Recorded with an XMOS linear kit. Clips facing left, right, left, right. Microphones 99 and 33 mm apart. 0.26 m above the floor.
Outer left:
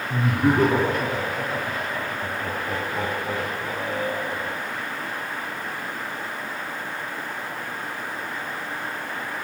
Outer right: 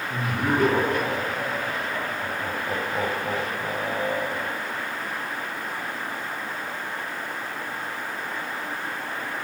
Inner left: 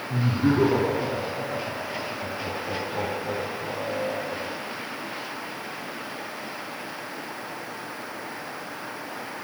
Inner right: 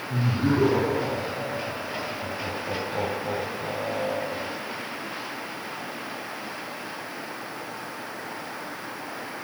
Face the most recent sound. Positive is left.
turn(degrees=-45)  # may be behind; listen again after turning